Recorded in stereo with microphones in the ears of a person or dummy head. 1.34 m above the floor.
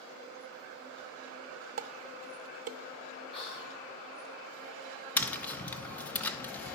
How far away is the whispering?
About 5 m.